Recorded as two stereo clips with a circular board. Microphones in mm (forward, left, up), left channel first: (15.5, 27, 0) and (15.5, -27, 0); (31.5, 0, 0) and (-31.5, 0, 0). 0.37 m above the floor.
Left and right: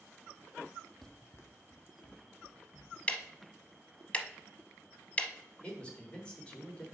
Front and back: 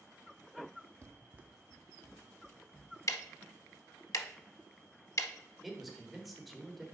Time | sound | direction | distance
1.0 | running footsteps | 175° left | 0.5 m
3.1 | ticking | 25° left | 0.6 m
5.6 | a man speaking | 100° left | 1.4 m